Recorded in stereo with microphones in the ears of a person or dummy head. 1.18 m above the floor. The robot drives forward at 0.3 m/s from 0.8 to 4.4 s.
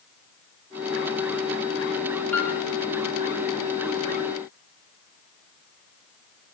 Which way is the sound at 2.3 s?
10° left (ahead or behind).